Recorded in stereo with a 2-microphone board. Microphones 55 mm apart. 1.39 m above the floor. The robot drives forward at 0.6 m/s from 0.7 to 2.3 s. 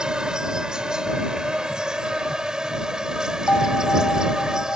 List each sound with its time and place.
0.0 s an insect: 15° right (ahead or behind)
3.5 s a bell: 35° left (ahead or behind)